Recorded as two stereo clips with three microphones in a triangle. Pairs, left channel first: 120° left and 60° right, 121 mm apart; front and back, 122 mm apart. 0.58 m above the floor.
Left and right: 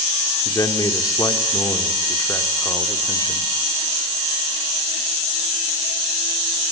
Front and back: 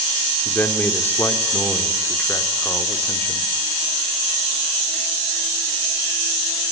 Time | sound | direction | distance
0.4 | a man speaking | 65° left | 1.9 m